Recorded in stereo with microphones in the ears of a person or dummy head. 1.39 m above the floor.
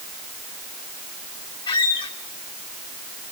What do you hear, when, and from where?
1.7 s a squeak: 25° left (ahead or behind), 1.3 m